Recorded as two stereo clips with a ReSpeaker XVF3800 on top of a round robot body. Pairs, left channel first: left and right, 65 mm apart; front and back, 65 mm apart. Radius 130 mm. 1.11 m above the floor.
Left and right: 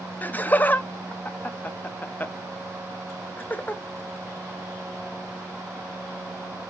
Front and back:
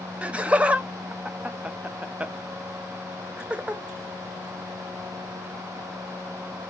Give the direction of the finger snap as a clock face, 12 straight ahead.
I don't hear a finger snap.